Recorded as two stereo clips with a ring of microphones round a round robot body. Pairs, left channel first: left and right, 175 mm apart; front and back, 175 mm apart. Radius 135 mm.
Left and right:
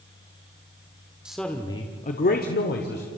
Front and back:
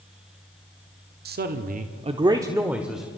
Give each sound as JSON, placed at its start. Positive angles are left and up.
{"t": 1.2, "sound": "a man speaking", "azimuth_deg": -175, "distance_m": 1.2}